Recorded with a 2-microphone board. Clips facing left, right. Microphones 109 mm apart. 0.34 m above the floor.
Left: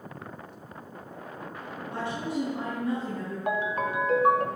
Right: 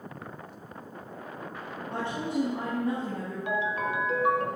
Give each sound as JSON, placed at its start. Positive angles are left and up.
{"t": 1.9, "sound": "a woman speaking", "side_deg": -60, "distance_m": 3.0}
{"t": 3.5, "sound": "a ringtone", "side_deg": 45, "distance_m": 0.6}